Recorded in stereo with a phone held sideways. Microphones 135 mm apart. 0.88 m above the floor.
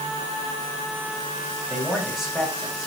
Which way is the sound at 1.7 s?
Centre (ahead or behind).